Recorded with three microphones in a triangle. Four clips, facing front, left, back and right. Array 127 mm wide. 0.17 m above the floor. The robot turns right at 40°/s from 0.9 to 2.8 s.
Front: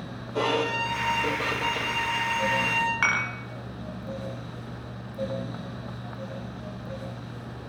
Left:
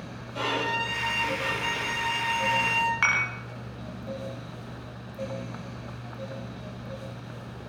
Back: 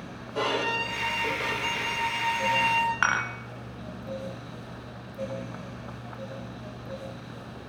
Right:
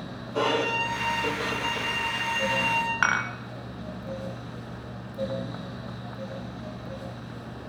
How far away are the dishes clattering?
About 0.9 m.